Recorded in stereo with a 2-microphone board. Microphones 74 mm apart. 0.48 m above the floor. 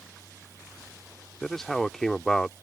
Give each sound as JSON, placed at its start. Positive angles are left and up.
{"t": 1.4, "sound": "a man speaking", "side_deg": 10}